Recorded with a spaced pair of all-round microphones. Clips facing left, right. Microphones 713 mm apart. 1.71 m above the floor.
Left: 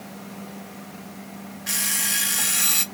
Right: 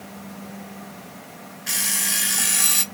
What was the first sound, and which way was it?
An alarm clock, 15° left (ahead or behind).